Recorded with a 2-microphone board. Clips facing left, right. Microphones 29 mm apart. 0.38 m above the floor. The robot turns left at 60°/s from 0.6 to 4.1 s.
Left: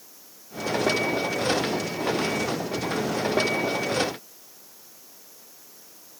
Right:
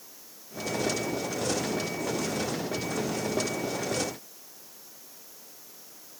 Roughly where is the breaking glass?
I don't hear breaking glass.